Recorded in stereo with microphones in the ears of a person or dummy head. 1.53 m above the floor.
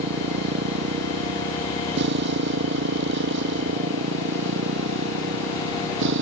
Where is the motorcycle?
55° right (ahead or behind); by 6.2 s 70° right (ahead or behind).